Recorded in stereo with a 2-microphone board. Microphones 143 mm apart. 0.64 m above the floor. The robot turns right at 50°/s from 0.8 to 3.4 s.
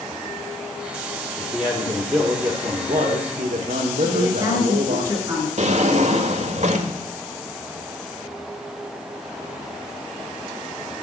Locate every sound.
1.4 s a man speaking: 170° left, 1.7 m; by 5.0 s 90° right, 1.7 m
4.0 s a woman speaking: 25° right (ahead or behind), 7.5 m
5.6 s a drawer: 55° right (ahead or behind), 1.3 m